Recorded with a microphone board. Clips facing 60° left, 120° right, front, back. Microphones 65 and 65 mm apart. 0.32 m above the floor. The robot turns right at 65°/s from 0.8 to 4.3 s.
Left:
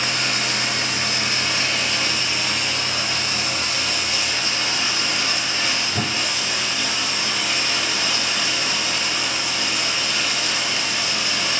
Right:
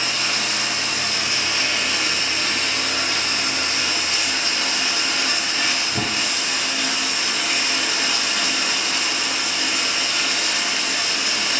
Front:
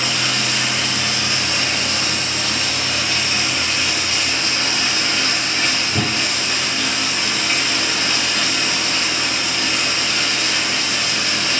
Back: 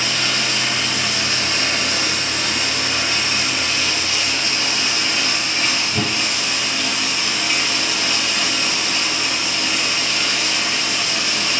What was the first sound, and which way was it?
Running water, 80° left.